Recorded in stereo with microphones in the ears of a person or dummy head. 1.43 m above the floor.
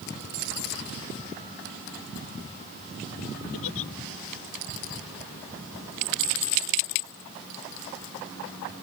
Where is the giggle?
75° left (ahead or behind).